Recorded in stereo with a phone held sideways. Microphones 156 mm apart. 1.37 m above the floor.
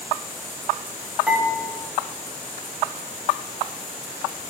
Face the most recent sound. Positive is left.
turn(degrees=-5)  # may be behind; listen again after turning